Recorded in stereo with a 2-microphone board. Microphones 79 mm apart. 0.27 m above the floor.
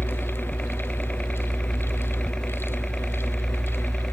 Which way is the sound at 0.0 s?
10° left (ahead or behind).